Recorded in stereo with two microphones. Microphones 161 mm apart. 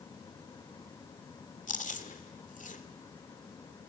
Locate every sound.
1.7 s chewing: 55° left (ahead or behind), 1.7 m